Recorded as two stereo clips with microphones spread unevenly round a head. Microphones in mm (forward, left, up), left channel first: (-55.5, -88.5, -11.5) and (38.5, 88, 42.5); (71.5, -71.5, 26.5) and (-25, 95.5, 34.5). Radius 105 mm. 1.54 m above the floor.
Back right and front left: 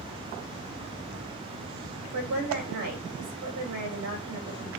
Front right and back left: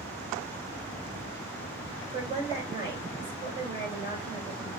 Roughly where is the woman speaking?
Ahead left.